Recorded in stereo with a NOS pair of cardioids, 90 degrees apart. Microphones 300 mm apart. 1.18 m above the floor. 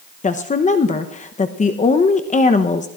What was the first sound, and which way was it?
A woman speaking, 25° left.